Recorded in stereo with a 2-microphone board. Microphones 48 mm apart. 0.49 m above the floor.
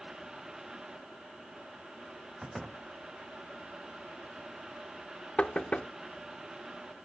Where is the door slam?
Centre (ahead or behind).